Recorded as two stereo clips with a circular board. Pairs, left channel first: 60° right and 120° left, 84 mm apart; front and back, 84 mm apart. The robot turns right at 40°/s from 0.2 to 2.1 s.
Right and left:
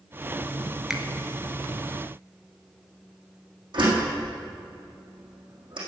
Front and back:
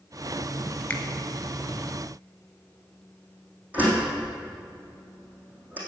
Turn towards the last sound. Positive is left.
turn(degrees=110)